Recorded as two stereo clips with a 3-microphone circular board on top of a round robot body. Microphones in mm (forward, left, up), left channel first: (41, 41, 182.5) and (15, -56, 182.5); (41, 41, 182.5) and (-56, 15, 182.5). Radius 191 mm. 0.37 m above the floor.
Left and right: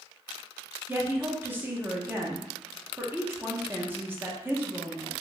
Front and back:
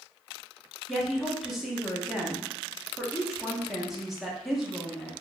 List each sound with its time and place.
0.9 s a woman speaking: 80° right, 1.0 m